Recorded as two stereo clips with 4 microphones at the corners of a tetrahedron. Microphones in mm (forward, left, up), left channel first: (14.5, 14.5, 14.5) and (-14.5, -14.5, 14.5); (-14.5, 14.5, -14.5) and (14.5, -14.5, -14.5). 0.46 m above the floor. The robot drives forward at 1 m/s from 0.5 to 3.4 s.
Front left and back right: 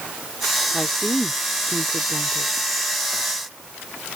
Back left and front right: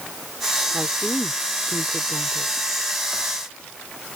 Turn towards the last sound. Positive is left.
turn(degrees=-175)